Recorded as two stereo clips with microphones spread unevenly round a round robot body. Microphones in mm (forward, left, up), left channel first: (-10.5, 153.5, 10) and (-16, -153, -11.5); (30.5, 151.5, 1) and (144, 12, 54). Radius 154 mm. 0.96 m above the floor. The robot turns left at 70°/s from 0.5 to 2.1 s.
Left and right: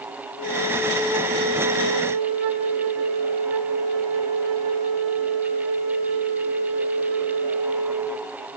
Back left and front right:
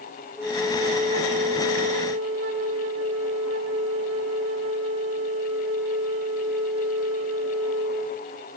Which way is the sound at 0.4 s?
35° left.